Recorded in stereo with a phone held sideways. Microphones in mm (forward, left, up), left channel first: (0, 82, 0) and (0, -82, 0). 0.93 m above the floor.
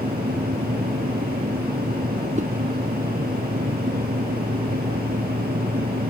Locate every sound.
0.0 s a fan: 80° right
2.4 s a whoosh: 50° right (ahead or behind)